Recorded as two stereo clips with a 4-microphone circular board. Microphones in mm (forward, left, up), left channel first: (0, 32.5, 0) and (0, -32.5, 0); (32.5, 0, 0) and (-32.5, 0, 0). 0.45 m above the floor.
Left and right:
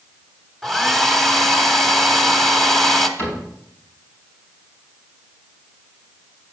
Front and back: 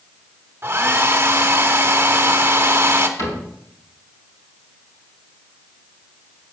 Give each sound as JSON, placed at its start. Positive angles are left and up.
{"t": 0.6, "sound": "a hair dryer", "azimuth_deg": 175, "distance_m": 1.1}
{"t": 3.2, "sound": "a cupboard door", "azimuth_deg": 35, "distance_m": 4.0}